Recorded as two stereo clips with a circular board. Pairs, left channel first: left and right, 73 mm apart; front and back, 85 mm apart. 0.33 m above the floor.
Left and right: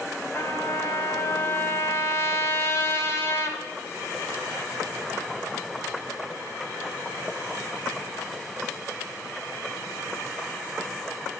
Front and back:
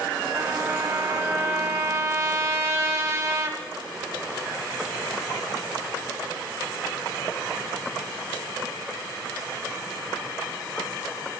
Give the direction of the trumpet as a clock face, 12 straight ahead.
8 o'clock.